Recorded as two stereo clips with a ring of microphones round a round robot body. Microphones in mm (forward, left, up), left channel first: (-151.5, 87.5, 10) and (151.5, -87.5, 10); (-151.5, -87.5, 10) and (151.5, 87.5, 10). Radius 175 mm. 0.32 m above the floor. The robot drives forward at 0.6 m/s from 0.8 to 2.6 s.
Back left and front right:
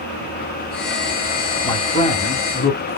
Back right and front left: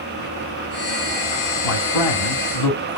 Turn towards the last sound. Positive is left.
turn(degrees=-150)